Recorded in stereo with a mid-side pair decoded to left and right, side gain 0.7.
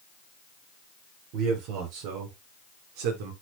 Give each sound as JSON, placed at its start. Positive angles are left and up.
{"t": 1.3, "sound": "a man speaking", "azimuth_deg": -65, "distance_m": 5.0}